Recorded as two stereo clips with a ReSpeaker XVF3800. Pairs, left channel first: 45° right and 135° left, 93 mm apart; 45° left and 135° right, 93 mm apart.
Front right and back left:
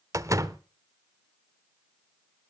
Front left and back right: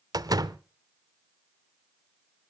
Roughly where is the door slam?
Behind.